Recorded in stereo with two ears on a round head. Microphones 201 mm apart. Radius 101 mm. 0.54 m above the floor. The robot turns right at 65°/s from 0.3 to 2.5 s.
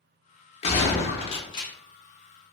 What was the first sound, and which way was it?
A gunshot, 30° left (ahead or behind).